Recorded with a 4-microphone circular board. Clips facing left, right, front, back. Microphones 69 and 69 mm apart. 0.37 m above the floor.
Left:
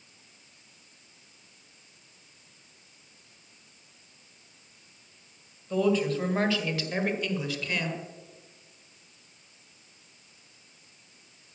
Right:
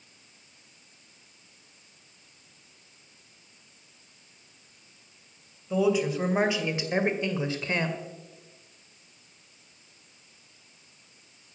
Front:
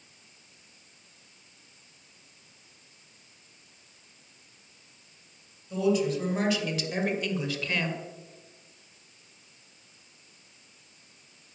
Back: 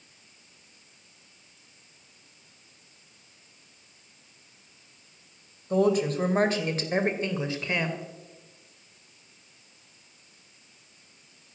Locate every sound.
5.7 s a woman speaking: 170° right, 2 m; by 8.0 s 115° right, 1.6 m